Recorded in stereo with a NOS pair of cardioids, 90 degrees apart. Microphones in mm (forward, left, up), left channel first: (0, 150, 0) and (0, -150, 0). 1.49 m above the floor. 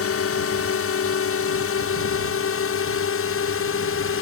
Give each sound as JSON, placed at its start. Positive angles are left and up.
{"t": 0.0, "sound": "a drone", "azimuth_deg": 50}